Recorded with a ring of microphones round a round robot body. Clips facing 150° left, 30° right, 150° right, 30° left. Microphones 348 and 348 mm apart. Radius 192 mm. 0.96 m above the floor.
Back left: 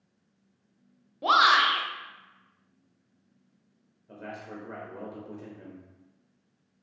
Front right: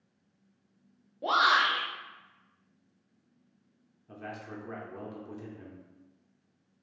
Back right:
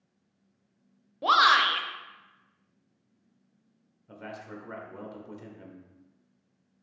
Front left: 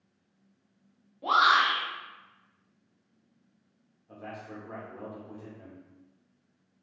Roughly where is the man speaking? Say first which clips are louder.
Back left 1 dB, back right 1 dB; right.